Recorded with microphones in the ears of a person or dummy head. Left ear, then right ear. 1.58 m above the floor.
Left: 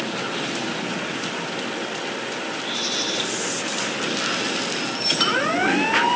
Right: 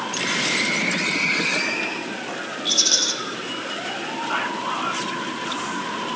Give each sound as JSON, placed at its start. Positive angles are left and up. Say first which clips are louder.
{"t": 2.6, "sound": "a rattle", "louder": "right 8 dB", "side_deg": -85, "distance_m": 3.0}